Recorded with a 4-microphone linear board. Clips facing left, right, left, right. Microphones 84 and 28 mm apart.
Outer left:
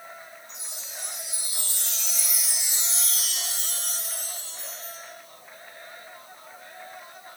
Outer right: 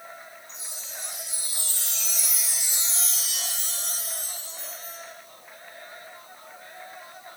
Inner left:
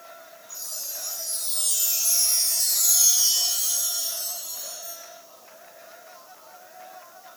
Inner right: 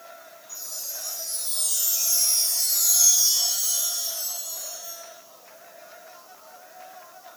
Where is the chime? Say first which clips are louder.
Even, even; 70° left (ahead or behind), 3 m.